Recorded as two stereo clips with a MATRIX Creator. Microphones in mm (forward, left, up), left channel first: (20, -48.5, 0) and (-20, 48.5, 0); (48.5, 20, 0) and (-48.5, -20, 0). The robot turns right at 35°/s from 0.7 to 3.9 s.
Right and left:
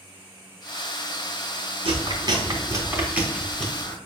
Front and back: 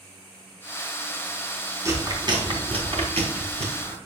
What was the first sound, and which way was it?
Chewing, 145° left.